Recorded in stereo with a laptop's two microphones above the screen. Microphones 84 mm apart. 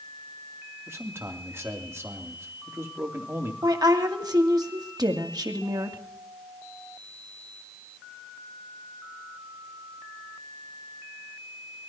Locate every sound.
0.9 s a man speaking: 30° right (ahead or behind), 3 m
3.6 s a woman speaking: 50° right (ahead or behind), 2 m